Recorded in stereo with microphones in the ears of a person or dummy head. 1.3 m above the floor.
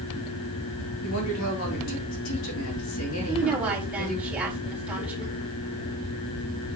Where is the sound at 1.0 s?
70° left (ahead or behind), 3 m.